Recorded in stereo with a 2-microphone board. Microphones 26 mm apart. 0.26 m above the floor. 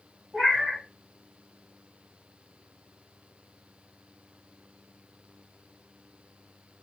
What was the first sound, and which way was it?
A cat meowing, 15° right (ahead or behind).